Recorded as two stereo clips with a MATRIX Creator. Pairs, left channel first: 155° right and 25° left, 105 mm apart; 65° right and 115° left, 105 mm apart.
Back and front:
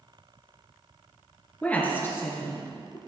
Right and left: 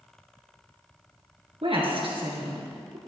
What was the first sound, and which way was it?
A woman speaking, 130° left.